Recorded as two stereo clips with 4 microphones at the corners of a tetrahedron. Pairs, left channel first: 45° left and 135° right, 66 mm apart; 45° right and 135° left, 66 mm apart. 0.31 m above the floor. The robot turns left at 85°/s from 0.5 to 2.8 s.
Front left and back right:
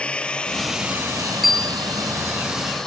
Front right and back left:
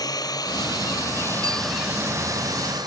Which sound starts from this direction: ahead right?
A drone, at 0.0 s.